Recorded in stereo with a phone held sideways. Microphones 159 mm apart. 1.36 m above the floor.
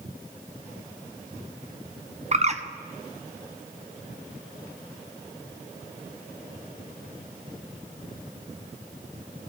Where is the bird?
45° right (ahead or behind), 0.6 m.